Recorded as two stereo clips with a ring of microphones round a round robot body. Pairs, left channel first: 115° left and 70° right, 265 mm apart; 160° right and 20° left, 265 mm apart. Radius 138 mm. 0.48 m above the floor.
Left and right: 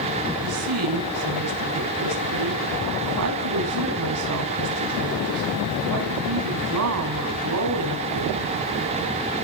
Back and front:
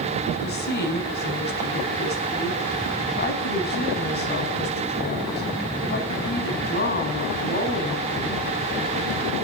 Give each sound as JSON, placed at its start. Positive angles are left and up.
{"t": 0.4, "sound": "a woman speaking", "azimuth_deg": -100, "distance_m": 5.0}